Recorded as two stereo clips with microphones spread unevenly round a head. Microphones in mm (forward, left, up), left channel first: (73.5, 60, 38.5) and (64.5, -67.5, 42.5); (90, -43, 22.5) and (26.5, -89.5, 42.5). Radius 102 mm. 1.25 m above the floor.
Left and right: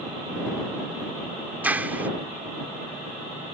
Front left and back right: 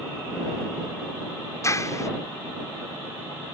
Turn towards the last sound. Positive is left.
turn(degrees=-15)